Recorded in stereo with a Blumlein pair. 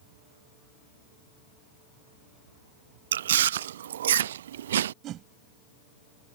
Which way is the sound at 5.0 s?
35° right.